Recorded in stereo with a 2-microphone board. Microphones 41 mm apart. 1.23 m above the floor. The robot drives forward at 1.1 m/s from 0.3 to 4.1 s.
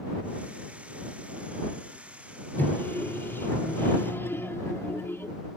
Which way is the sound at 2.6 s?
60° left (ahead or behind).